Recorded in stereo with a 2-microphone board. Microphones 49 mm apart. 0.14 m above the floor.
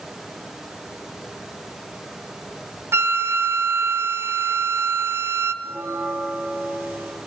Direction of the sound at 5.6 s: 50° right (ahead or behind).